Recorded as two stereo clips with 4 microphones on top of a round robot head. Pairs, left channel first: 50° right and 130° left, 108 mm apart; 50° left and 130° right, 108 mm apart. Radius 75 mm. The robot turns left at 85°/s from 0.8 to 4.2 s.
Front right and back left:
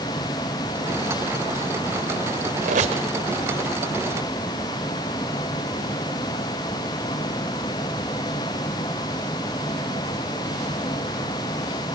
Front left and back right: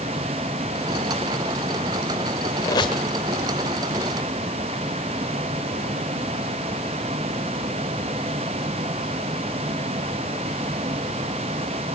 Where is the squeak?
115° left, 1.6 m; by 3.0 s 80° left, 1.6 m.